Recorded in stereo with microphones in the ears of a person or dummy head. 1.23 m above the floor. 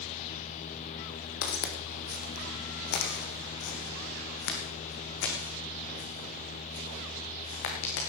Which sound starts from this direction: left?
Footsteps, at 1.4 s.